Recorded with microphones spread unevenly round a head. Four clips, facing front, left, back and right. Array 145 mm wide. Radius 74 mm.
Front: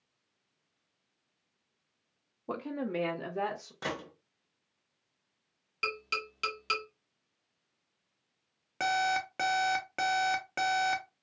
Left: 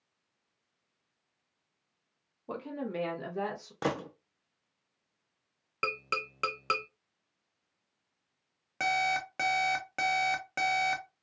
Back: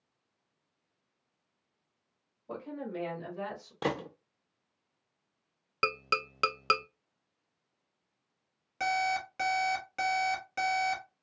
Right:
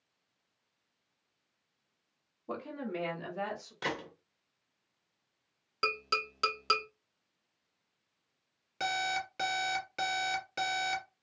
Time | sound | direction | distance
2.5 | a woman speaking | 5° left | 0.8 m
3.8 | a gunshot | 130° left | 0.6 m
5.8 | tapping | 170° left | 0.5 m
8.8 | an alarm clock | 40° left | 1.1 m